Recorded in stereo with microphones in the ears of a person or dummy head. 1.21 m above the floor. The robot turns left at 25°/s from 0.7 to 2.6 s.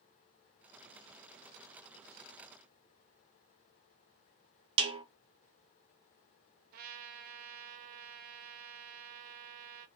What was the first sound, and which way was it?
A snare drum, 30° right (ahead or behind).